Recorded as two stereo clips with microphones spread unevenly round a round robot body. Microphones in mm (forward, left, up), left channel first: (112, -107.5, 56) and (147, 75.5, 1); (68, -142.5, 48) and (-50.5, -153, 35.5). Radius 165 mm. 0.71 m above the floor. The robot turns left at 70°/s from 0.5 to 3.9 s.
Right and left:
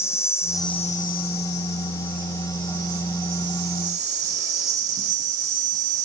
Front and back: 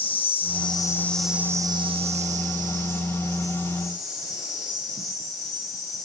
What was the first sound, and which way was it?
An insect, 30° right.